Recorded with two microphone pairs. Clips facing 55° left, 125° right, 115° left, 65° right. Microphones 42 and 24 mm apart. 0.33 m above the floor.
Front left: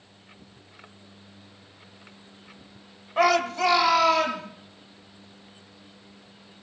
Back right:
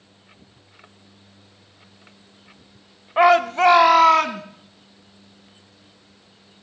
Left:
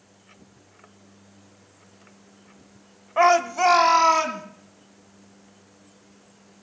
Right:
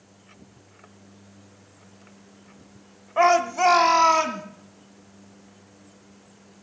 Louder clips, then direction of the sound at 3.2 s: Back right 6 dB, left 1 dB; 175° right.